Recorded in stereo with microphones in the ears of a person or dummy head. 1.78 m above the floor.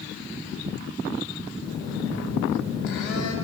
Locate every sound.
1.6 s a phone buzzing: 65° left (ahead or behind), 3 m